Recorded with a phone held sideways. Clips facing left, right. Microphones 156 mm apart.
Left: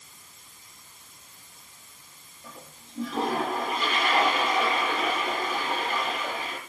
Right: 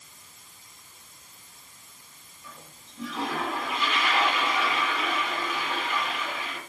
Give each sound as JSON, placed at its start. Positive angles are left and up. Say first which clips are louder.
{"t": 2.4, "sound": "a toilet flushing", "louder": "left 3 dB", "side_deg": 40, "distance_m": 9.0}